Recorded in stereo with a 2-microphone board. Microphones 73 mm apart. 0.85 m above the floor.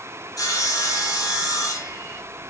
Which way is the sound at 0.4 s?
50° left (ahead or behind).